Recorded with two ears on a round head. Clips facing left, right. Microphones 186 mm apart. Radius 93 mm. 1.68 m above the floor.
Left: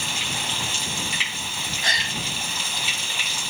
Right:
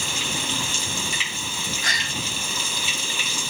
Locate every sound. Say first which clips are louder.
0.0 s running water: right 2 dB; 80° right
1.8 s a gasp: left 1 dB; 25° left (ahead or behind)